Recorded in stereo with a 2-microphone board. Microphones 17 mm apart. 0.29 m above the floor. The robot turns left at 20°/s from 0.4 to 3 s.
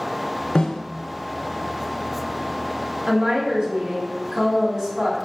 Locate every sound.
0.6 s a snare drum: 65° left (ahead or behind), 0.7 m; by 0.8 s 60° left (ahead or behind), 0.7 m
3.1 s a woman speaking: 40° right (ahead or behind), 1.8 m